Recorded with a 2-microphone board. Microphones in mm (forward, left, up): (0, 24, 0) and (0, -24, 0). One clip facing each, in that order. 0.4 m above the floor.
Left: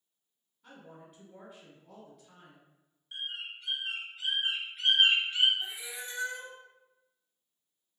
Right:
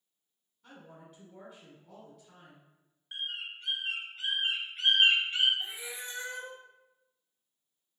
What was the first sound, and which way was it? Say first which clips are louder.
A woman speaking: left 1 dB; centre (ahead or behind).